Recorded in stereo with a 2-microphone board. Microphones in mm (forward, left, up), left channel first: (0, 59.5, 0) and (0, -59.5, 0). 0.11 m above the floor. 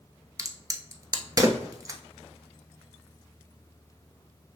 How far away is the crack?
About 0.8 m.